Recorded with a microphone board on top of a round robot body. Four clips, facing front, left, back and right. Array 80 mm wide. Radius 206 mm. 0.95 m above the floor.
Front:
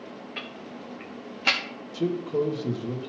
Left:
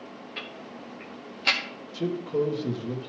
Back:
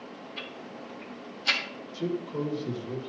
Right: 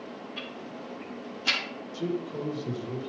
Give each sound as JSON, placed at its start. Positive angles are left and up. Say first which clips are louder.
{"t": 0.4, "sound": "ticking", "louder": "right 1 dB, front 2 dB", "azimuth_deg": 20, "distance_m": 0.9}
{"t": 1.9, "sound": "a man speaking", "louder": "left 5 dB, front 5 dB", "azimuth_deg": 40, "distance_m": 1.6}